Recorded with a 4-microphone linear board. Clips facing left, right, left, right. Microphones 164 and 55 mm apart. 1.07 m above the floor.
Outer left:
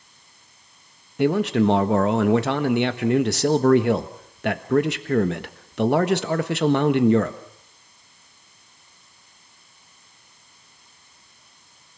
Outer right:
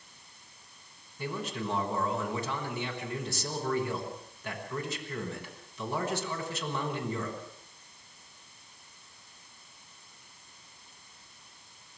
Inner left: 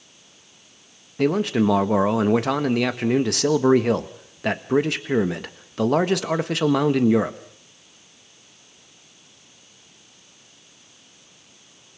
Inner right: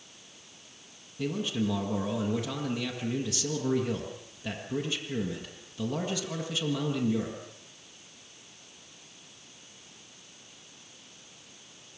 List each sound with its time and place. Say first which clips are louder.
1.2 s a man speaking: outer left 17 dB, inner left 11 dB; 70° left (ahead or behind), 1.3 m